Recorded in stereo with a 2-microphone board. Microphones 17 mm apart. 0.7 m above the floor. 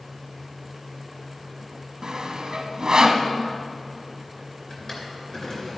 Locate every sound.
2.0 s sawing: 45° right (ahead or behind), 0.7 m
4.7 s a drawer: 30° left (ahead or behind), 2.5 m